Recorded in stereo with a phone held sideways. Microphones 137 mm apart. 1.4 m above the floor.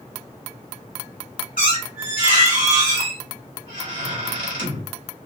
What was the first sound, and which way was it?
A squeak, 70° right (ahead or behind).